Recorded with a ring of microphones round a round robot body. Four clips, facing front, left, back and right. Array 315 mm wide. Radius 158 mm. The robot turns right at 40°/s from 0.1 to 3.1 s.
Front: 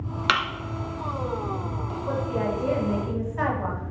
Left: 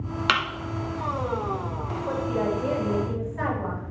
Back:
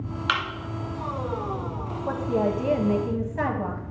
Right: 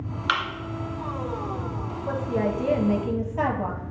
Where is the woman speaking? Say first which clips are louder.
Right 1 dB, back 3 dB; 165° right, 2.5 m; by 3.8 s 125° right, 2.5 m.